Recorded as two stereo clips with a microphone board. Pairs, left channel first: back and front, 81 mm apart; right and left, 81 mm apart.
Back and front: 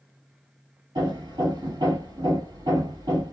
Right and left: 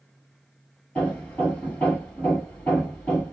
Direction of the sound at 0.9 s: 20° right.